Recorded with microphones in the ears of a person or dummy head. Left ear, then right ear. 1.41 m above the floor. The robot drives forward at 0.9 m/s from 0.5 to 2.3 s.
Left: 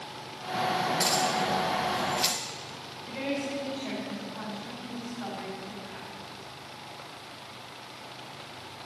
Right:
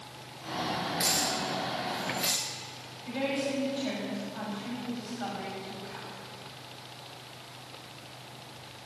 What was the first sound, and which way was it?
Keys jangling, 15° left (ahead or behind).